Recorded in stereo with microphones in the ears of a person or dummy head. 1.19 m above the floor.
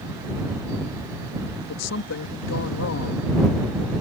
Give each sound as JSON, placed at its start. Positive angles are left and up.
{"t": 1.7, "sound": "a woman speaking", "side_deg": 75}